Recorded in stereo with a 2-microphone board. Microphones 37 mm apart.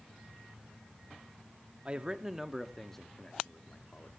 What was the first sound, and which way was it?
A man speaking, 30° right (ahead or behind).